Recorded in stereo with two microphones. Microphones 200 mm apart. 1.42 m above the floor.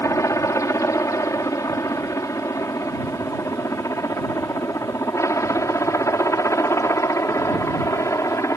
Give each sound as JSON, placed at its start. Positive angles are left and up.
{"t": 0.0, "sound": "a helicopter", "side_deg": 15}